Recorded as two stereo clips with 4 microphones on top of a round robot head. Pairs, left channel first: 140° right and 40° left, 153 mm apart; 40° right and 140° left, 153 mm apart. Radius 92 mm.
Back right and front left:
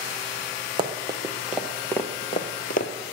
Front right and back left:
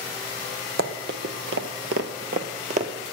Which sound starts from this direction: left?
Running footsteps, at 0.8 s.